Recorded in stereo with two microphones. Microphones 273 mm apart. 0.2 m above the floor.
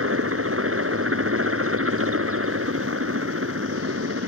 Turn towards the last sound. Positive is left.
turn(degrees=-50)  # may be behind; listen again after turning